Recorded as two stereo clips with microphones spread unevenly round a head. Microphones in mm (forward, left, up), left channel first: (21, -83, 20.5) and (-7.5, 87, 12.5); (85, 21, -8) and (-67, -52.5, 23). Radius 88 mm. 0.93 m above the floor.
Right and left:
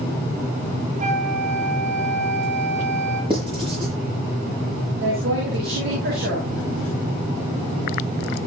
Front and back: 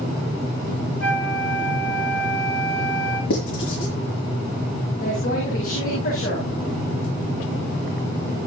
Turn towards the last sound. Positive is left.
turn(degrees=70)